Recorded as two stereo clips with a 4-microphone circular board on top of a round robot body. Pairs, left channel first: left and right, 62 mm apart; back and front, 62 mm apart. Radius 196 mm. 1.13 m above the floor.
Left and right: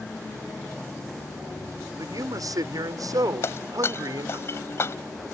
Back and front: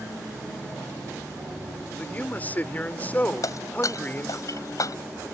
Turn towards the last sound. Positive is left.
turn(degrees=145)